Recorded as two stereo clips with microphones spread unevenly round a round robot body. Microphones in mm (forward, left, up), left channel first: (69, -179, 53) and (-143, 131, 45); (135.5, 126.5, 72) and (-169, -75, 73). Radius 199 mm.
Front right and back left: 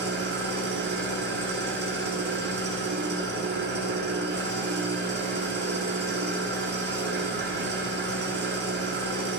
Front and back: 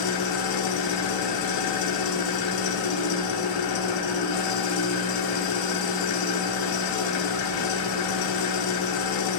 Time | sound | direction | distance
0.0 | an engine running | 60° left | 1.4 m